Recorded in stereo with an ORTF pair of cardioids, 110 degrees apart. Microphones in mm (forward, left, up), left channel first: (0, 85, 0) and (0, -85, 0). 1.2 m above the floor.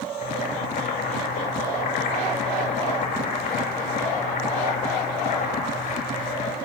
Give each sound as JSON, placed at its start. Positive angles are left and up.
{"t": 0.2, "sound": "boiling", "azimuth_deg": 55, "distance_m": 6.0}